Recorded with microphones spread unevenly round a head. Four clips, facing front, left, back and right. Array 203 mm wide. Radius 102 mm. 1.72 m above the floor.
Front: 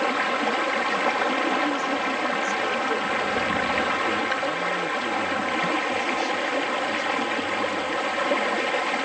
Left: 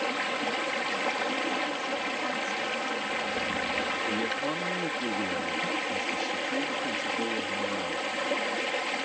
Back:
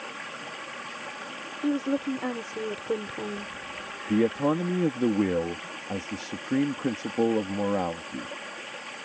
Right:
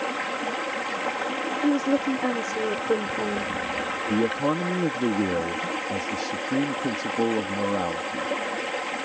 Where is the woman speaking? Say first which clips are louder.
Right 10 dB, front 2 dB; 110° right.